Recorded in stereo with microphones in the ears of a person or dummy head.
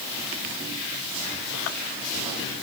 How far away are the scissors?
I don't hear scissors.